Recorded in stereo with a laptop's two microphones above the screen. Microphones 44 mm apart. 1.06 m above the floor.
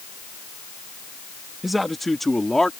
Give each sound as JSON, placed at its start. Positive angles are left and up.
{"t": 1.6, "sound": "a man speaking", "side_deg": -5}